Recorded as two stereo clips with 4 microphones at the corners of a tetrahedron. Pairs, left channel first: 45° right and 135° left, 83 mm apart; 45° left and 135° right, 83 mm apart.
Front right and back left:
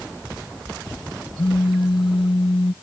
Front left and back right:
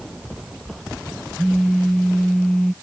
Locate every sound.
1.4 s a phone buzzing: 40° right